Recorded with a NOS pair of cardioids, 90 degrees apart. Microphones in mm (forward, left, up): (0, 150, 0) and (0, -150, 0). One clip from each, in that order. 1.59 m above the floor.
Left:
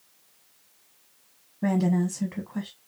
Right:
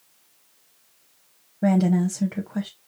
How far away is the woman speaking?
About 0.9 m.